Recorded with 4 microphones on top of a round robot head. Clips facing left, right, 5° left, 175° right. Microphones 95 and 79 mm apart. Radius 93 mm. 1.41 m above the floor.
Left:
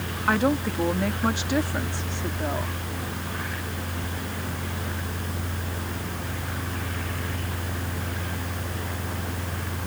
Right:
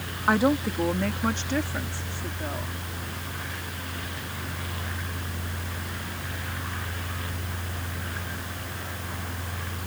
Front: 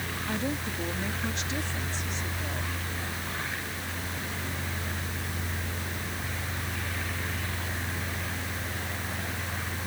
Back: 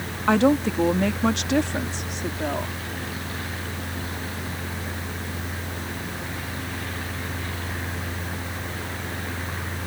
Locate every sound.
0.3 s a woman speaking: 175° right; by 2.8 s 155° left